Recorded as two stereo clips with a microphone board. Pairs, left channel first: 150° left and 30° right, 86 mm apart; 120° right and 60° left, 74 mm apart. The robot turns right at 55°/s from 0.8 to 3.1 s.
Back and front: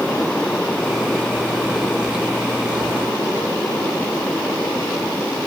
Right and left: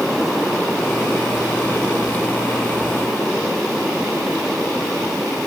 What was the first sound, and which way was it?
Only background noise.